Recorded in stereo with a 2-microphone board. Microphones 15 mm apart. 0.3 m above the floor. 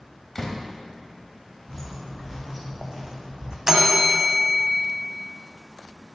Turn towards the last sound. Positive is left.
turn(degrees=-35)  # may be behind; listen again after turning